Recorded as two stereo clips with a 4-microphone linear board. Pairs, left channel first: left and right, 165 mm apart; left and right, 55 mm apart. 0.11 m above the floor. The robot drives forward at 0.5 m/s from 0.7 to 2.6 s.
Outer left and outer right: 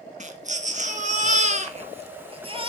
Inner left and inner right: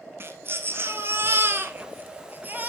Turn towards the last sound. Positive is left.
turn(degrees=-35)  # may be behind; listen again after turning